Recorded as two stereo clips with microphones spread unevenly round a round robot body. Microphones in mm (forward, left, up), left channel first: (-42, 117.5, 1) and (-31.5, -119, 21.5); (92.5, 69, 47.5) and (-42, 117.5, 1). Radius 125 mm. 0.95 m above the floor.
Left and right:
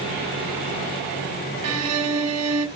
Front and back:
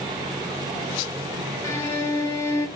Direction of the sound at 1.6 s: 85° right.